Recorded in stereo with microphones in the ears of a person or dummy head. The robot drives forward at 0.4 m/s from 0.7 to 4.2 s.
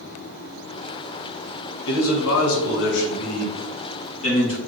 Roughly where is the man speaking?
Left.